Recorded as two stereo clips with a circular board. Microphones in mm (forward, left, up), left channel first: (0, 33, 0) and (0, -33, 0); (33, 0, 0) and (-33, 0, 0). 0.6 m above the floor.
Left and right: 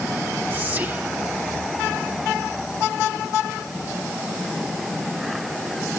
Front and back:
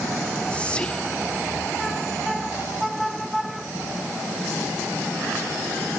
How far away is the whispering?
About 1.0 m.